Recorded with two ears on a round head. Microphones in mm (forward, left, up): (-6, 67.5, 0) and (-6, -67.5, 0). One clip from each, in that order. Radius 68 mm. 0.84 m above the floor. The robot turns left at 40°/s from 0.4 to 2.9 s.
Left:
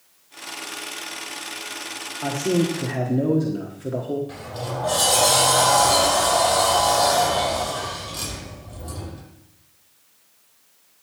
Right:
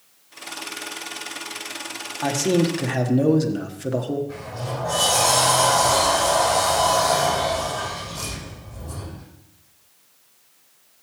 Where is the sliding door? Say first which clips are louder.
Even; 60° left (ahead or behind), 6 m.